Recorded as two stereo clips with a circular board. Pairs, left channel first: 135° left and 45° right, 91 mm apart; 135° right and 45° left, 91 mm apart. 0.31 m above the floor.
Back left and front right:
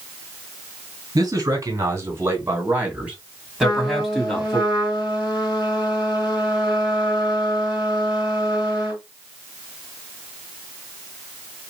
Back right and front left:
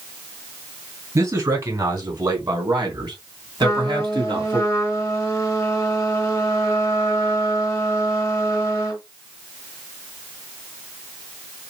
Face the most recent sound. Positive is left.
turn(degrees=170)